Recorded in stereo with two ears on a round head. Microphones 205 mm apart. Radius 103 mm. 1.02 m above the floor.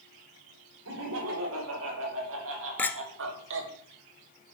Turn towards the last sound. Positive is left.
turn(degrees=10)  # may be behind; listen again after turning